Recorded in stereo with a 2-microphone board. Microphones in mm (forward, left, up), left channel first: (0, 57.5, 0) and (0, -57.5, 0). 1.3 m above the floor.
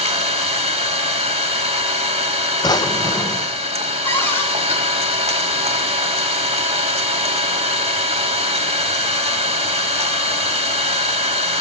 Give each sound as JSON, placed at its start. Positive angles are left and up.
{"t": 0.0, "sound": "an engine running", "side_deg": -60, "distance_m": 2.5}
{"t": 2.6, "sound": "a drawer", "side_deg": 35, "distance_m": 0.5}
{"t": 4.0, "sound": "a cupboard door", "side_deg": 20, "distance_m": 3.0}